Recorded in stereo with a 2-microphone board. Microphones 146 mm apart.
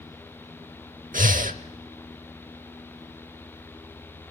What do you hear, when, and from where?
1.1 s breathing: 75° right (ahead or behind), 0.8 m